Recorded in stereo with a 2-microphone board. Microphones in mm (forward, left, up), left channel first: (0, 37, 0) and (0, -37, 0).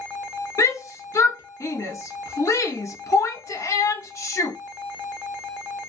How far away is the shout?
About 0.9 m.